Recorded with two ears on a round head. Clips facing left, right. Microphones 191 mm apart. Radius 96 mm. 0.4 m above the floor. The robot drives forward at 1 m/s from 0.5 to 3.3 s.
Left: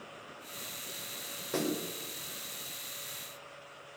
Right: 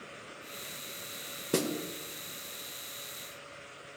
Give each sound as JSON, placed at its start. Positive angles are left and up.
{"t": 1.5, "sound": "a snare drum", "side_deg": -45, "distance_m": 1.4}